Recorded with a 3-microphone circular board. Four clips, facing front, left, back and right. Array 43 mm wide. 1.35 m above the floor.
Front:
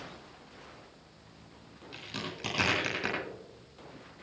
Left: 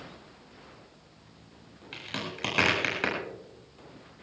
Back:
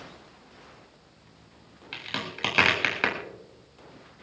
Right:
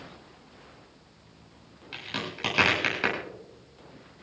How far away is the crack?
About 7.5 m.